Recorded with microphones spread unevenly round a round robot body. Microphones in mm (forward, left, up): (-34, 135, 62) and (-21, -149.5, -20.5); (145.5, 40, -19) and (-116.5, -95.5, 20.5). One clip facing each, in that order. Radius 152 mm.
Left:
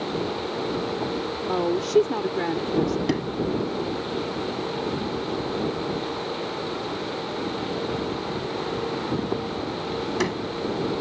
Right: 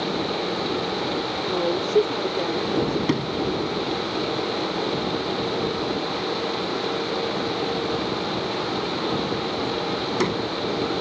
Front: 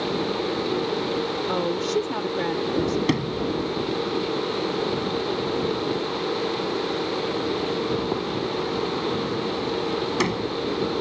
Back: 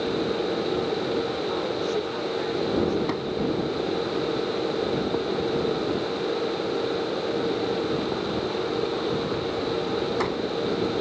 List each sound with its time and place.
1.5 s a woman speaking: 20° left
3.1 s a sliding door: 5° right